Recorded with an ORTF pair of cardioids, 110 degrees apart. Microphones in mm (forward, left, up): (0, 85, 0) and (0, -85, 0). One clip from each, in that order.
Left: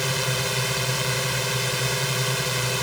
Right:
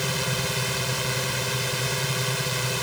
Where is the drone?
15° left.